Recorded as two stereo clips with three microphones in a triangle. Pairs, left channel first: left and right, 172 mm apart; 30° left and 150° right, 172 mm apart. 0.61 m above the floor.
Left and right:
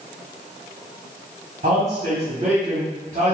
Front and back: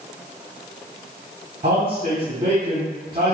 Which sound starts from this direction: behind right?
A man speaking, at 1.6 s.